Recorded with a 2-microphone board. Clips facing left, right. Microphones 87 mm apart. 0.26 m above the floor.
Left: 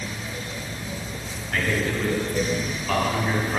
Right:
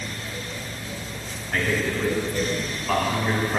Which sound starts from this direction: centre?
A man speaking, at 1.5 s.